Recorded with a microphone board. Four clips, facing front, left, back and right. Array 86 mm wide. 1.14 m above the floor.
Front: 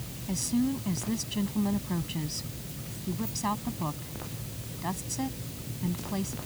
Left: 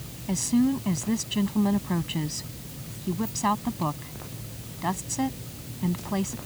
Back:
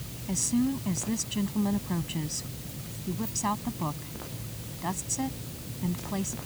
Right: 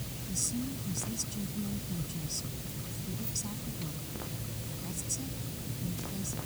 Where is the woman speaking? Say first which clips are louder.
Left 15 dB, back 1 dB; 95° left.